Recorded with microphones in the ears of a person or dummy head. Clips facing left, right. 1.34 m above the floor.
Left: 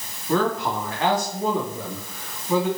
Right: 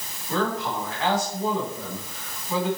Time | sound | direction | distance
0.3 | a man speaking | 55° left (ahead or behind) | 3 m